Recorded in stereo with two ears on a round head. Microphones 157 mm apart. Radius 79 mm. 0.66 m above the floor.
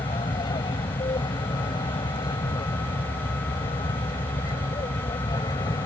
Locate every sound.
0.0 s an aircraft: 25° left (ahead or behind); by 5.9 s 20° left (ahead or behind)